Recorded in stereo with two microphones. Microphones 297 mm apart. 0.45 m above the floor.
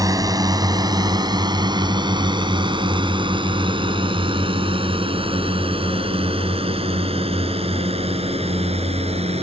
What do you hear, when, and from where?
0.0 s a drone: 10° right (ahead or behind); by 9.4 s 20° right (ahead or behind)